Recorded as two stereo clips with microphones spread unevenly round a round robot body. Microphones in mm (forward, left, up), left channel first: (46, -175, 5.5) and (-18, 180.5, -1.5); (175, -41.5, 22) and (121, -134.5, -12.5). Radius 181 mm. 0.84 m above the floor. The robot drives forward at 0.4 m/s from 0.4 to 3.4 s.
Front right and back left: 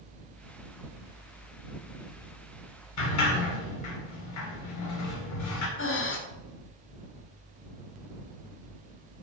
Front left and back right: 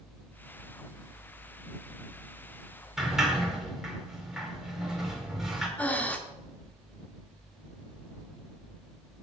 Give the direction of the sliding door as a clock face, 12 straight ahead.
1 o'clock.